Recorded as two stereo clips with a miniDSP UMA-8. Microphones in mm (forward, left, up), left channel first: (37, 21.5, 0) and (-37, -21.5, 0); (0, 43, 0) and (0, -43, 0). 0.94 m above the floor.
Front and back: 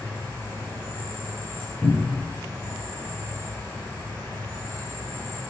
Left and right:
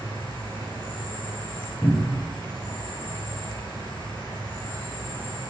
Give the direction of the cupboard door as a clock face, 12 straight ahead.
9 o'clock.